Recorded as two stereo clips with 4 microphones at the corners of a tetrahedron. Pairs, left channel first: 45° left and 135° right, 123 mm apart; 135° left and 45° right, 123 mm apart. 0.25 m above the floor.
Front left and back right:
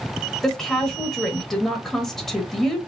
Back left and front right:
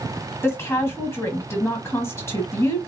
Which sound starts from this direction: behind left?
A woman speaking, at 0.4 s.